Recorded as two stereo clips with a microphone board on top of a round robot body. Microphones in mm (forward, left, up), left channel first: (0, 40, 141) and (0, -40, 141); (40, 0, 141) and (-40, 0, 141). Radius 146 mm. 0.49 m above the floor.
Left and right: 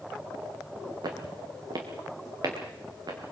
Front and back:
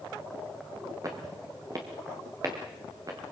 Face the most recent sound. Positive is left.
turn(degrees=-130)